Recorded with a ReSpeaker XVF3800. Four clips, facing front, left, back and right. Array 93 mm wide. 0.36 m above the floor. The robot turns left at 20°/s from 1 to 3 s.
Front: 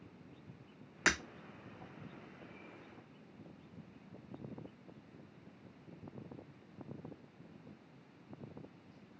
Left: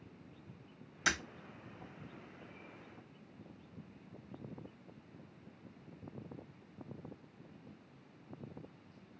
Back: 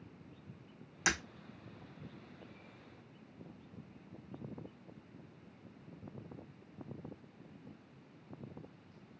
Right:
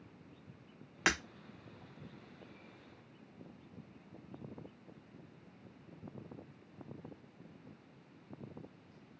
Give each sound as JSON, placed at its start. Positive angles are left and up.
{"t": 1.1, "sound": "breaking glass", "azimuth_deg": -55, "distance_m": 0.7}